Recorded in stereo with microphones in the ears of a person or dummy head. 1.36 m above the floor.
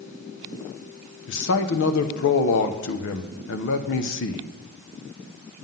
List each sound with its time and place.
1.3 s a man speaking: 60° left (ahead or behind), 0.9 m